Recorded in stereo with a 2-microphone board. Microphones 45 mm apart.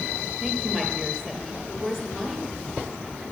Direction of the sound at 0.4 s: 5° left (ahead or behind).